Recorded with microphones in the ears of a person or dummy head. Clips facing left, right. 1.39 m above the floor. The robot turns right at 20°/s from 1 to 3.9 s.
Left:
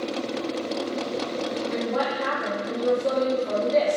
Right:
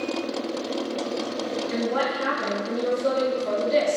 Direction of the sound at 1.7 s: 135° right.